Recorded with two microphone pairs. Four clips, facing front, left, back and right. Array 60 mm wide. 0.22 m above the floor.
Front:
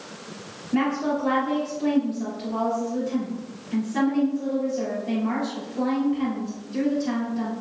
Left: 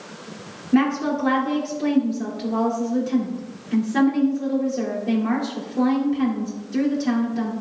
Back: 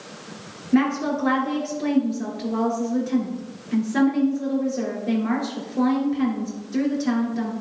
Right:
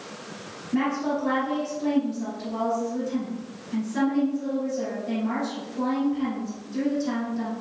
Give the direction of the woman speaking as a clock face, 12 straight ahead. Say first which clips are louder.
Left 5 dB, back 3 dB; 7 o'clock.